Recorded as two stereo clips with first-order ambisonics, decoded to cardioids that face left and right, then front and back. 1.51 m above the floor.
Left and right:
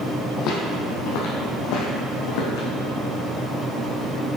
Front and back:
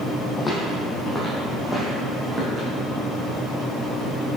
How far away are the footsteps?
About 2 m.